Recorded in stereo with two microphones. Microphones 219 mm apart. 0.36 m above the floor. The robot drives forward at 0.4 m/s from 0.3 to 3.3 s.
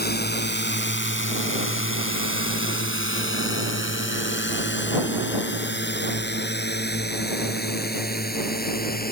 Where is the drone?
50° left (ahead or behind); by 9.1 s 45° left (ahead or behind).